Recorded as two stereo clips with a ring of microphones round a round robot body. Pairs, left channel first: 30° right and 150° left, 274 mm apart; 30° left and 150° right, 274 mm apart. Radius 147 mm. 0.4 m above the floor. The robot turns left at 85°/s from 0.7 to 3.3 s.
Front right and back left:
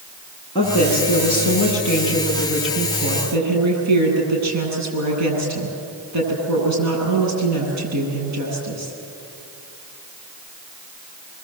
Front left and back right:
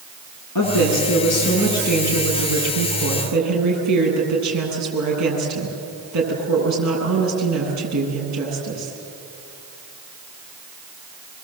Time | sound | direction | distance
0.6 | a woman speaking | 45° left | 9.5 m